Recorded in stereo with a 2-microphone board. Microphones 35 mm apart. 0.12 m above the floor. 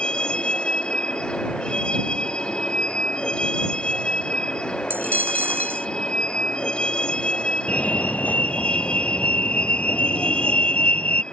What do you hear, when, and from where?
0.0 s a vehicle: 30° left (ahead or behind)
4.9 s a dropped coin: 85° right
7.7 s a fire alarm: 45° left (ahead or behind)